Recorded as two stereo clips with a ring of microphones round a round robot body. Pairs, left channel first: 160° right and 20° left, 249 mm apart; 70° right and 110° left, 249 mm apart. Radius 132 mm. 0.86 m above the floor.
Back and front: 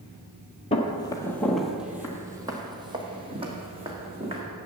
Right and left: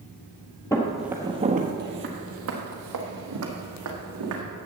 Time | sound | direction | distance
0.7 | footsteps | 130° right | 0.9 m